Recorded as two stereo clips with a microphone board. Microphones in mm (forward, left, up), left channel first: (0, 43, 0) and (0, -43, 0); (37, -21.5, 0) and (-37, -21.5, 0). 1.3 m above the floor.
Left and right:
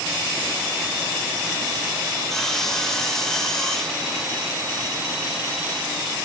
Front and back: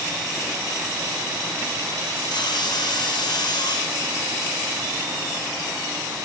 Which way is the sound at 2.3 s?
5° left.